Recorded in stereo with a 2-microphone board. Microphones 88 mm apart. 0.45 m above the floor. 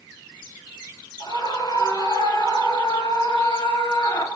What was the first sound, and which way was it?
A scream, 60° left (ahead or behind).